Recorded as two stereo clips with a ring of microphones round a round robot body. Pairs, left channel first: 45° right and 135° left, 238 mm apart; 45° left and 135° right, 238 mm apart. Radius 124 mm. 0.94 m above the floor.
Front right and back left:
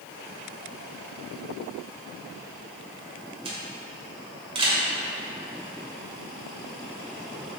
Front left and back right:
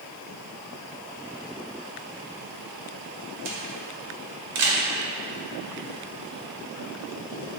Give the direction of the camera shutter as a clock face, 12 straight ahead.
5 o'clock.